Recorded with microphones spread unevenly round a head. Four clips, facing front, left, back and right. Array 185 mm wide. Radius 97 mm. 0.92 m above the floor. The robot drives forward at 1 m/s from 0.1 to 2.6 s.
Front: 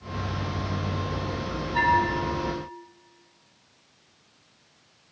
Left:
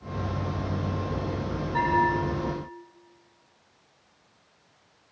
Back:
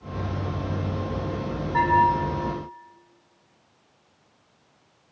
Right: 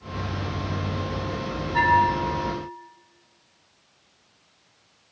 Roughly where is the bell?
Behind.